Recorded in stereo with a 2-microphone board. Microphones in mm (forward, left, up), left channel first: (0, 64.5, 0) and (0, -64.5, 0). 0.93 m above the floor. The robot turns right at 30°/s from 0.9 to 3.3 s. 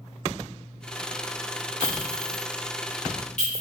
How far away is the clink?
About 1.3 m.